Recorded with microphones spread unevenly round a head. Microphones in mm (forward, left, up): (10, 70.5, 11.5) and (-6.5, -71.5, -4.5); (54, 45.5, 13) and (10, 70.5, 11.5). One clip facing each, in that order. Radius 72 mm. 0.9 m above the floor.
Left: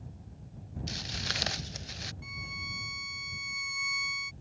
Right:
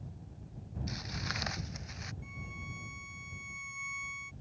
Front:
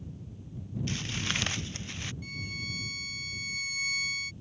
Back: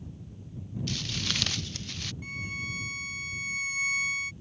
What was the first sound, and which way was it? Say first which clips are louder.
Footsteps: even, even; 30° left.